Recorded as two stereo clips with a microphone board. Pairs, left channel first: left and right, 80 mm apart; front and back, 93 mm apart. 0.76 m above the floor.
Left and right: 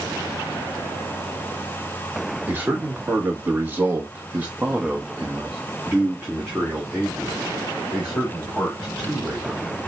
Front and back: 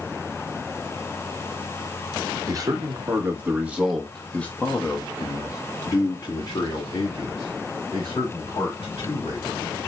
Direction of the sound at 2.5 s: 150° right.